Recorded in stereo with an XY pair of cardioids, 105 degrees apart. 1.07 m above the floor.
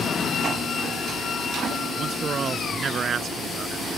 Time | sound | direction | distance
2.0 | a man speaking | 45° right | ?